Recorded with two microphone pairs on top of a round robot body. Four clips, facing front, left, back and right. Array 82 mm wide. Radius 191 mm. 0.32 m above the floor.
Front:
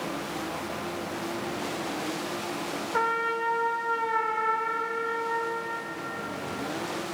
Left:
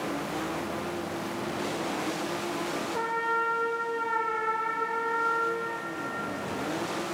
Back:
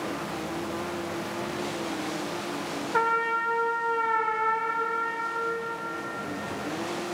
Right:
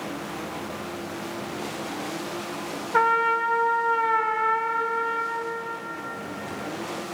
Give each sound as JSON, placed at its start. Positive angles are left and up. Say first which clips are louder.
{"t": 2.9, "sound": "a trumpet", "louder": "right 9 dB, back 2 dB", "azimuth_deg": -95, "distance_m": 0.7}